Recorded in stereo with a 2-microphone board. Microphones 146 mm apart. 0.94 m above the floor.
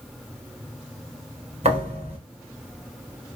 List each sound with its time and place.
1.6 s a thud: 45° right (ahead or behind), 1.8 m